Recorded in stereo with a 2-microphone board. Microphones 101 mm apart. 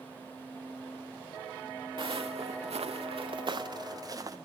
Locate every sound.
2.0 s footsteps: 55° right (ahead or behind), 0.6 m; by 4.4 s 35° right (ahead or behind), 1.2 m